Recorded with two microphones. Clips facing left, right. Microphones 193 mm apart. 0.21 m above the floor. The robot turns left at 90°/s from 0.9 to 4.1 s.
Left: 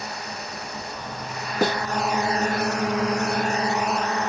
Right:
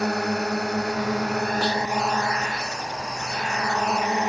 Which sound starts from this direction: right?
A drone, at 0.0 s.